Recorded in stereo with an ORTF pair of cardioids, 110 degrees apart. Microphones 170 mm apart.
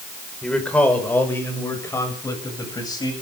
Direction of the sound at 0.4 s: 5° left.